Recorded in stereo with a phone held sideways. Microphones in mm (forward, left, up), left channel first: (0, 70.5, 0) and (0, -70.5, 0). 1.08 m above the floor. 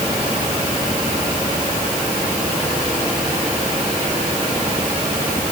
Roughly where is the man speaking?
I don't hear a man speaking.